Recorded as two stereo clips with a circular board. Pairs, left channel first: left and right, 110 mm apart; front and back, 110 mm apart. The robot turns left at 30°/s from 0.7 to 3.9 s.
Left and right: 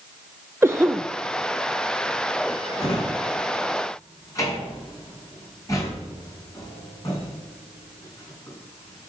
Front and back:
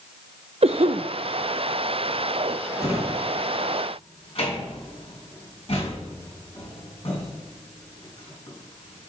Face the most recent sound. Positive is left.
turn(degrees=30)